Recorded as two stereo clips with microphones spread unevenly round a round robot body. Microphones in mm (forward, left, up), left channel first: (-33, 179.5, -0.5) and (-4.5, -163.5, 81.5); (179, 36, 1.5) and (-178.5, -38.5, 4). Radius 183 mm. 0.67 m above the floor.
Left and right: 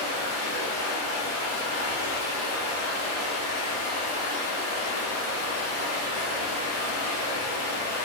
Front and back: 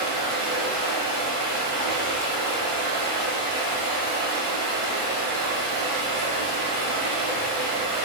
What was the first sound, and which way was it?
Running water, 150° left.